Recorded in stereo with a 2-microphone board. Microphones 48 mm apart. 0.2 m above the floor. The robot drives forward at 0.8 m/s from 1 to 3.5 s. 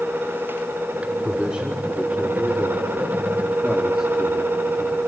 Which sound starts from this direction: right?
A man speaking, at 1.2 s.